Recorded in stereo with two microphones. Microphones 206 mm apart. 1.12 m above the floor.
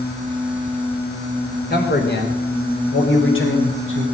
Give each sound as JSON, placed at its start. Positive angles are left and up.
{"t": 1.7, "sound": "a man speaking", "side_deg": 50, "distance_m": 3.5}